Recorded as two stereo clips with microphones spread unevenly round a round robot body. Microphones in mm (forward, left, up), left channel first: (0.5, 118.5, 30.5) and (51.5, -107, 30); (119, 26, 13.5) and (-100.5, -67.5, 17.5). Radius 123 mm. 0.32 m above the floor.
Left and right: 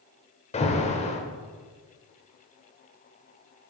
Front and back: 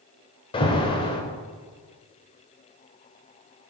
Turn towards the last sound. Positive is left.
turn(degrees=70)